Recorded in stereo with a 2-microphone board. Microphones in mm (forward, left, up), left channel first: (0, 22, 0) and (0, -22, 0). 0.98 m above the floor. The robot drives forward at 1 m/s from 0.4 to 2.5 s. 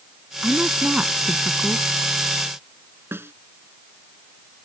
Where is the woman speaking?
25° right (ahead or behind); by 1.9 s 30° right (ahead or behind).